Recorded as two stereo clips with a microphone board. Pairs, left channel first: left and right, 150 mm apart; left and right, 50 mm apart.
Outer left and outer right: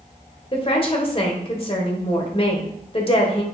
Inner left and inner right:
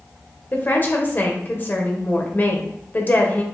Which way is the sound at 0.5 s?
40° left (ahead or behind).